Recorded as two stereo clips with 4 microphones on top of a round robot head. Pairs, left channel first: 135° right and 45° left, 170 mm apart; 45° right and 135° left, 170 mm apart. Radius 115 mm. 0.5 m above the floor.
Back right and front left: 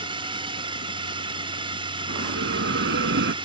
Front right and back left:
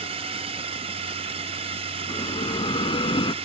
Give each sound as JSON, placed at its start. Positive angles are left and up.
{"t": 0.0, "sound": "a drone", "azimuth_deg": 95}
{"t": 2.1, "sound": "a bell", "azimuth_deg": 20}